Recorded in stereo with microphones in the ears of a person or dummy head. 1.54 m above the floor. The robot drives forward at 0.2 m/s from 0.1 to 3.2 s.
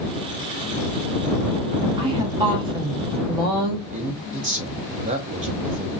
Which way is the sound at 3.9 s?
35° right (ahead or behind).